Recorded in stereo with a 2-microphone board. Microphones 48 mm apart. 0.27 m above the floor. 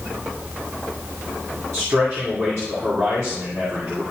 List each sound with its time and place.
1.7 s a man speaking: 65° right (ahead or behind), 2 m